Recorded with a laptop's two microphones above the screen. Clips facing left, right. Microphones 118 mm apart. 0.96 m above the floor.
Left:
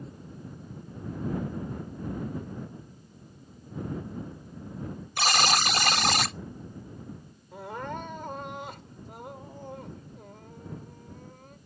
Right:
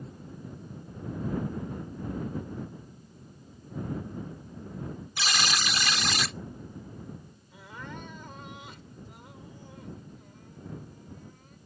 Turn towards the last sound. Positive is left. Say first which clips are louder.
# left 8 dB
turn(degrees=50)  # may be behind; listen again after turning